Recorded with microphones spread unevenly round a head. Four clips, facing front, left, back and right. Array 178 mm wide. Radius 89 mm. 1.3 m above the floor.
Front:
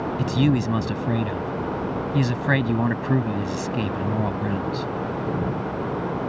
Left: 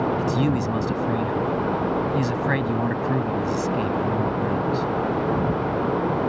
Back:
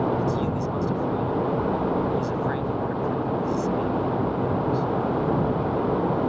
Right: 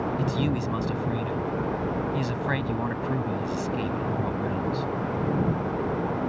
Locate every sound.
0.2 s a man speaking: 20° left